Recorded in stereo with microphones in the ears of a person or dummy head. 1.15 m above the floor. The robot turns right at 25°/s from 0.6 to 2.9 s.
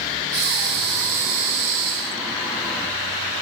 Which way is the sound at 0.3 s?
110° right.